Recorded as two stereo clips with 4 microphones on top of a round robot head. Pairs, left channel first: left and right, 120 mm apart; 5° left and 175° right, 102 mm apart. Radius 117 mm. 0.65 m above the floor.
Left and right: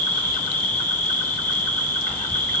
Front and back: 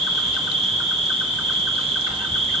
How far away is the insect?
About 3.5 m.